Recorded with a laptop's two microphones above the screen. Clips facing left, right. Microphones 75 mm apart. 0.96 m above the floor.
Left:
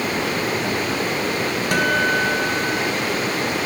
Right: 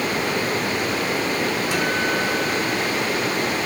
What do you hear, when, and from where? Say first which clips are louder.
1.7 s a guitar: left 3 dB; 60° left (ahead or behind), 3.5 m